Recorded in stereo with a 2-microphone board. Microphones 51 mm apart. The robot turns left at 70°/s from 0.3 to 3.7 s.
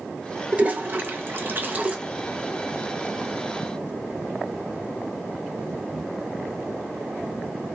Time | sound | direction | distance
0.5 | a toilet flushing | 30° right (ahead or behind) | 0.6 m